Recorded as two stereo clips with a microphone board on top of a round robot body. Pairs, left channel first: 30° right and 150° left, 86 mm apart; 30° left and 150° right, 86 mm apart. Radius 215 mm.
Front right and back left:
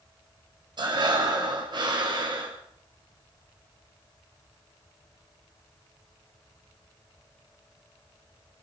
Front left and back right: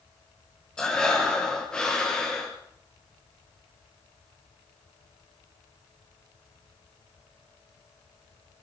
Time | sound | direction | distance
0.8 | breathing | 115° left | 2.5 m